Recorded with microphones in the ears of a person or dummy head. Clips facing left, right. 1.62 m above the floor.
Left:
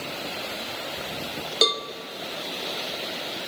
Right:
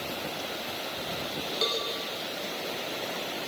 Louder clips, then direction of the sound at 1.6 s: Left 7 dB; 50° left (ahead or behind).